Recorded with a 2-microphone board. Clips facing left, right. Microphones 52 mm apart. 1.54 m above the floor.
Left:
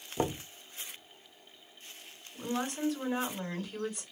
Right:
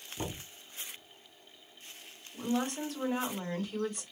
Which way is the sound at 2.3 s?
45° right (ahead or behind).